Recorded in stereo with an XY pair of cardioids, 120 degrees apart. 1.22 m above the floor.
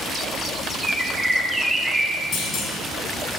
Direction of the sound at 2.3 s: 50° left.